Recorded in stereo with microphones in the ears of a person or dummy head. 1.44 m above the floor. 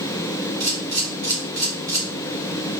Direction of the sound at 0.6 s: 20° right (ahead or behind).